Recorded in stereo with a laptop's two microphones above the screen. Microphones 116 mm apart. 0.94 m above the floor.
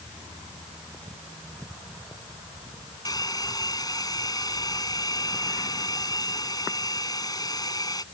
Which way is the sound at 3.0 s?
35° left (ahead or behind).